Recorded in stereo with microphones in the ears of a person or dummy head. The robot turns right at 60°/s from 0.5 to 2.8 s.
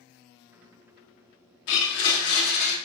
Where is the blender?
75° left, 0.9 m; by 2.8 s 140° left, 0.9 m.